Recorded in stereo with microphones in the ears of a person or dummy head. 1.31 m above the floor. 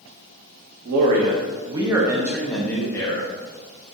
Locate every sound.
0.8 s a man speaking: 60° right (ahead or behind), 0.9 m; by 3.3 s 25° left (ahead or behind), 1.0 m